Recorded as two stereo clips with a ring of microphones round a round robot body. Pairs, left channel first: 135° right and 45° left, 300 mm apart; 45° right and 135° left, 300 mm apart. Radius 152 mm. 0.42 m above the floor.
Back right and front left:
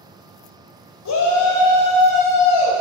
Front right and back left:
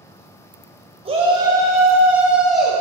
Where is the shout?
155° right, 2 m; by 2.8 s 135° right, 2.5 m.